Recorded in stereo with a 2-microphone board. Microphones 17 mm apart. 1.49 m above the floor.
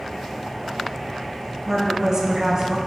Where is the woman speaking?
35° right (ahead or behind), 0.8 m.